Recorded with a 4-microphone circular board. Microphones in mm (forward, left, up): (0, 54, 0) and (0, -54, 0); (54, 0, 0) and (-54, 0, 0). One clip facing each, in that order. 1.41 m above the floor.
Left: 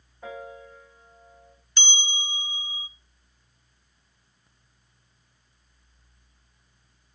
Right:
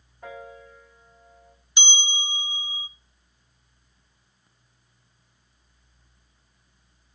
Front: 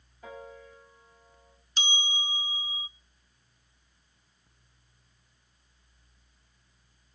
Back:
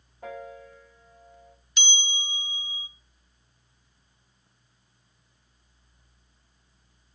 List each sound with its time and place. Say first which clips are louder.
0.2 s a piano: left 2 dB, back 5 dB; straight behind, 9 m
1.8 s a bell: right 2 dB, front 1 dB; 25° right, 0.8 m